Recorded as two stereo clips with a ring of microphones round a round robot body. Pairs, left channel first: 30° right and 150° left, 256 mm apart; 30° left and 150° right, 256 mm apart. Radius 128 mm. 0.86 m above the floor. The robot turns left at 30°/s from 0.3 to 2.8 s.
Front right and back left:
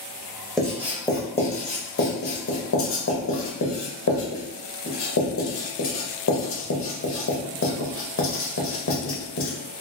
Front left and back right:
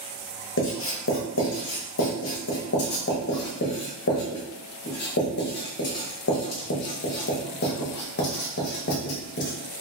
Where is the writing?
60° left, 1.1 m; by 9.5 s 10° right, 1.1 m.